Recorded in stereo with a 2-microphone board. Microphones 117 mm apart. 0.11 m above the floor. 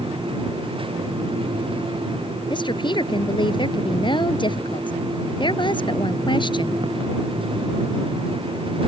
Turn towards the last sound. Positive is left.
turn(degrees=45)  # may be behind; listen again after turning